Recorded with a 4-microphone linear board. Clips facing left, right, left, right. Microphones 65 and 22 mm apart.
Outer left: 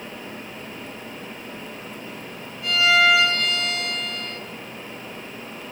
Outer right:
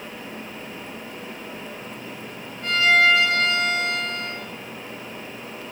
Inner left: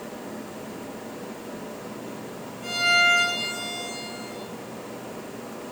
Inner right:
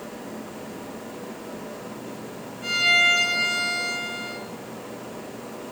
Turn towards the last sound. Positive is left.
turn(degrees=-35)  # may be behind; listen again after turning